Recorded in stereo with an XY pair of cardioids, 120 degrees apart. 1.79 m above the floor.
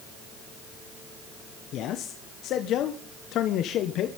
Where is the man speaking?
65° left, 1.6 m.